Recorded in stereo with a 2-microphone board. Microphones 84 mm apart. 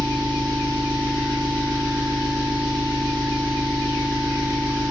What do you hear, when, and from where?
0.0 s an engine running: 65° right (ahead or behind), 1.7 m